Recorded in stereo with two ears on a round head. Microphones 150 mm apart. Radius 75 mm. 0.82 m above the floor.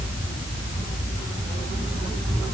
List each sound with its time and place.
Only background noise.